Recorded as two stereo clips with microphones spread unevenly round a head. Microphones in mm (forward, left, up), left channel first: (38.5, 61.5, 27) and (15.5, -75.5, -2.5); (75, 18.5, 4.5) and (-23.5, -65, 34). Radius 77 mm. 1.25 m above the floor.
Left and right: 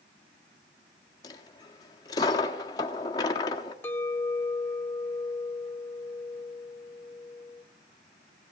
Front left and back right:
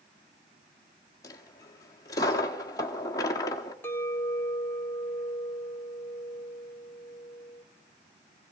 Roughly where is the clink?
Behind left.